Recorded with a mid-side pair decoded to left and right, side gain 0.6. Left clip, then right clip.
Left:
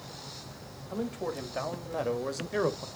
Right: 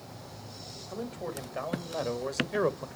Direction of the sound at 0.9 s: 15° left.